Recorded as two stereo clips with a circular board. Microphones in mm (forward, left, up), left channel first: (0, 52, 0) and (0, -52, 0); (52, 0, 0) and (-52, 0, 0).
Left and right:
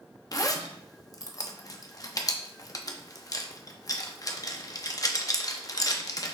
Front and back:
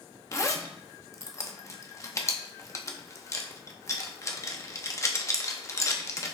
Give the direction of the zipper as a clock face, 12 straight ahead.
10 o'clock.